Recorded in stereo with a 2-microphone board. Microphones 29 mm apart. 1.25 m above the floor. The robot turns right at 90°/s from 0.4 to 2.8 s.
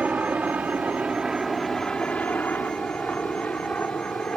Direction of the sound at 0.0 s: 60° right (ahead or behind).